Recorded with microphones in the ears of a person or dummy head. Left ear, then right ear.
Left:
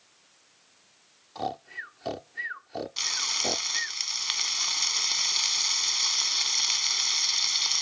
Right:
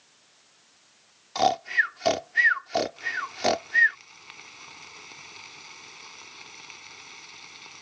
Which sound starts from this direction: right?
Snoring, at 1.4 s.